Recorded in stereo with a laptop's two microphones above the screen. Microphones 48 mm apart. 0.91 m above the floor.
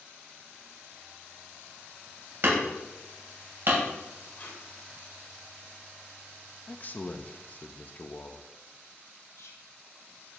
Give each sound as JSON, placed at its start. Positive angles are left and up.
{"t": 2.4, "sound": "hammering", "side_deg": -50, "distance_m": 3.0}
{"t": 4.4, "sound": "tape being pulled", "side_deg": 45, "distance_m": 3.0}
{"t": 6.7, "sound": "a man speaking", "side_deg": 35, "distance_m": 0.7}
{"t": 9.3, "sound": "whispering", "side_deg": 75, "distance_m": 1.2}